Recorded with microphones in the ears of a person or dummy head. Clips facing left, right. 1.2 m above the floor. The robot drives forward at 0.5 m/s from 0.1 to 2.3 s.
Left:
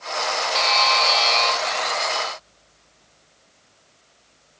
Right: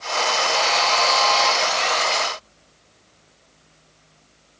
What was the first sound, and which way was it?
A buzzer, 45° left (ahead or behind).